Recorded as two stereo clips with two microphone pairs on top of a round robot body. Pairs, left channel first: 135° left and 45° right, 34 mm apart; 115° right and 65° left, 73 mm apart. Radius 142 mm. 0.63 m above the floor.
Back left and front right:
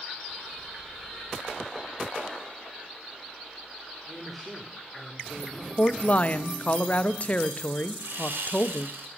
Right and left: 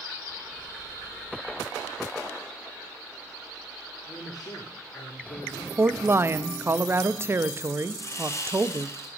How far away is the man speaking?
About 1.8 m.